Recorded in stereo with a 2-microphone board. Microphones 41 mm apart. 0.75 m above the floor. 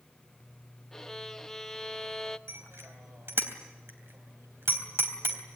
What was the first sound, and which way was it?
A violin, 10° left (ahead or behind).